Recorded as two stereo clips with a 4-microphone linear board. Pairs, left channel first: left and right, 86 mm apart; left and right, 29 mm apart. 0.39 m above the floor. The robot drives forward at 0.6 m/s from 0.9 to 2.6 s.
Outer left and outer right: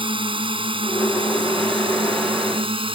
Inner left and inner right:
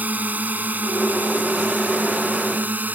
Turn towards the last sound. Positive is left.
turn(degrees=-70)  # may be behind; listen again after turning